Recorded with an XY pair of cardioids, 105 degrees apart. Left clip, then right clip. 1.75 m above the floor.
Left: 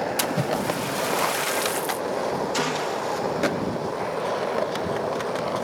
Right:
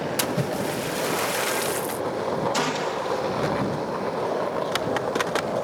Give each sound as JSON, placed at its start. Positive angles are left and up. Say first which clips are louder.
{"t": 0.2, "sound": "a splash", "louder": "left 1 dB", "azimuth_deg": 5}
{"t": 2.5, "sound": "a gunshot", "louder": "even", "azimuth_deg": 0}